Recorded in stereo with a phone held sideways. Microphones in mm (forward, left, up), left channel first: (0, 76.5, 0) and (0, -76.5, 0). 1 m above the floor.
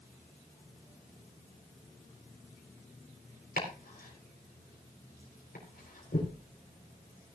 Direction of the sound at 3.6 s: 65° left (ahead or behind).